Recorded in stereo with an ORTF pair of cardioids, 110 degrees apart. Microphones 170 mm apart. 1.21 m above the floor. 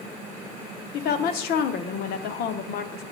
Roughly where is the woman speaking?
Left.